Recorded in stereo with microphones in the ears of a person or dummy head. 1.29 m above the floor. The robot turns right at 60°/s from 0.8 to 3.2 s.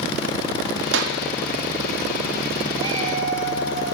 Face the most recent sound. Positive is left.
turn(degrees=-50)  # may be behind; listen again after turning